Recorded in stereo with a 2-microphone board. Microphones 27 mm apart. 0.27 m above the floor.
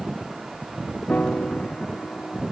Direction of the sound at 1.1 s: 60° left (ahead or behind).